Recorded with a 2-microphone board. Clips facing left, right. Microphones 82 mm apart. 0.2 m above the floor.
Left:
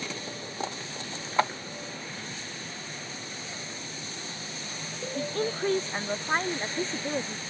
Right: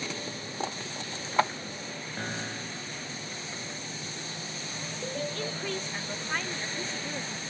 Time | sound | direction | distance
2.2 | a piano | 60° right (ahead or behind) | ?
5.2 | a woman speaking | 35° left (ahead or behind) | ?